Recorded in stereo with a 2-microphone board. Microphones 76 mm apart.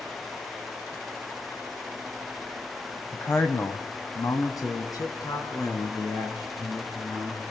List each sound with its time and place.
3.1 s a man speaking: 25° left (ahead or behind), 1.6 m; by 7.4 s 65° left (ahead or behind), 6 m